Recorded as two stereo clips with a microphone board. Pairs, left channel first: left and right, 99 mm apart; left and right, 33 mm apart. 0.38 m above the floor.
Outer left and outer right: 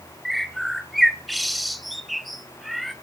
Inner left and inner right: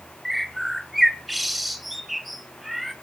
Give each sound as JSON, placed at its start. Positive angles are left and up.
{"t": 0.2, "sound": "a bird", "side_deg": 0, "distance_m": 1.7}